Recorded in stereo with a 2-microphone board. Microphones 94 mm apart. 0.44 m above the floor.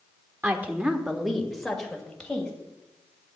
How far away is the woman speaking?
About 1.1 m.